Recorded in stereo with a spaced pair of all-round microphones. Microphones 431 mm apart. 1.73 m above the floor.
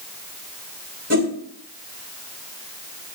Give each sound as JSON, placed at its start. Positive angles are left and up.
{"t": 1.1, "sound": "a whoosh", "side_deg": -35, "distance_m": 2.5}